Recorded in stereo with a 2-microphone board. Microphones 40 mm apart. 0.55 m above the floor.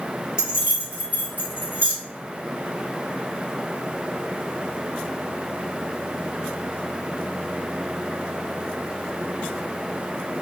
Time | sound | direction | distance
0.4 | keys jangling | 20° right (ahead or behind) | 1.0 m